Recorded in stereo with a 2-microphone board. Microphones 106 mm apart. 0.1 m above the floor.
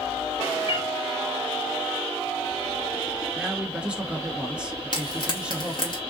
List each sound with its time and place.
0.7 s a cat meowing: 55° left (ahead or behind), 0.9 m
3.4 s a man speaking: 10° right (ahead or behind), 1.3 m
4.9 s frying: 45° left (ahead or behind), 2.5 m